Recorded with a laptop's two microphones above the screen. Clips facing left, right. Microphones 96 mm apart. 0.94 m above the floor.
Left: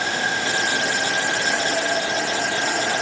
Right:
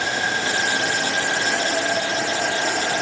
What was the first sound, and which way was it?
Only background noise.